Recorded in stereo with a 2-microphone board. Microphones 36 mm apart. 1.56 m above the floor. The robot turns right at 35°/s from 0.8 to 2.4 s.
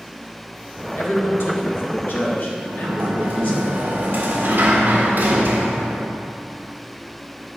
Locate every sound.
1.0 s a man speaking: 80° left, 1.7 m; by 3.5 s 130° left, 1.7 m
2.5 s a sliding door: 60° right (ahead or behind), 1.6 m